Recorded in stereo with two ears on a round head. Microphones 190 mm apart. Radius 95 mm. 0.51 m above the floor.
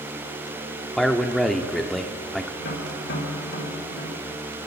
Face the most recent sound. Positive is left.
turn(degrees=65)  # may be behind; listen again after turning